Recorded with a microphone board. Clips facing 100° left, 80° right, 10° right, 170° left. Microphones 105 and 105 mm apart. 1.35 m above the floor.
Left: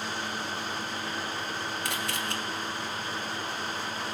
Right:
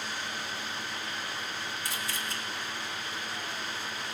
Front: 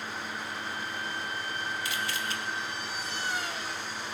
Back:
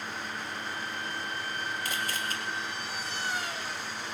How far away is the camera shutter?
About 1.5 m.